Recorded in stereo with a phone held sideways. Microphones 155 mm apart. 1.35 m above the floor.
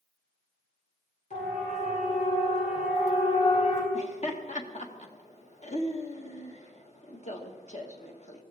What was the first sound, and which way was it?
A siren, 50° left (ahead or behind).